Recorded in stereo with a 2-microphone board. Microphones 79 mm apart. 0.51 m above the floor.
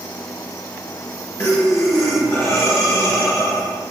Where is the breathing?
35° left (ahead or behind), 5 m.